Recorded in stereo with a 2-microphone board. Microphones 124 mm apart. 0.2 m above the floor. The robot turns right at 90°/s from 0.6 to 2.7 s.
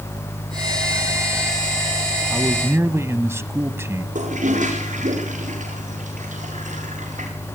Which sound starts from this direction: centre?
A man speaking, at 2.3 s.